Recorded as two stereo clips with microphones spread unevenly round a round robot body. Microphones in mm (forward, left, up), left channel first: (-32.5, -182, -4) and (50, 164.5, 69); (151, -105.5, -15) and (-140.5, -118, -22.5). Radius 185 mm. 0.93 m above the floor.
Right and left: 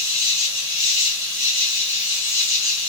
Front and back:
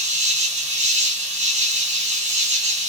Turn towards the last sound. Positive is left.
turn(degrees=-120)